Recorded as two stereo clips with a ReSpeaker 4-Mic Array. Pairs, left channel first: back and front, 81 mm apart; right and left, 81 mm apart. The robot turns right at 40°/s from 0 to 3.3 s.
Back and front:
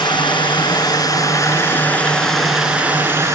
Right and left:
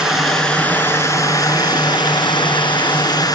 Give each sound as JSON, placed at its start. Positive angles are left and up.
{"t": 0.0, "sound": "running water", "azimuth_deg": 170, "distance_m": 3.5}